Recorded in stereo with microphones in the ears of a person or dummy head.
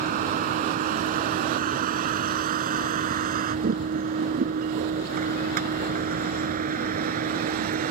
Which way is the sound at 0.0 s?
50° right (ahead or behind).